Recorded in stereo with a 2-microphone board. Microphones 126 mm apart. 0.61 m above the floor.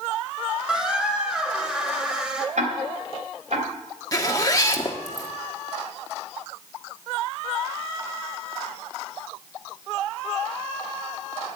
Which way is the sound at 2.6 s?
75° right (ahead or behind).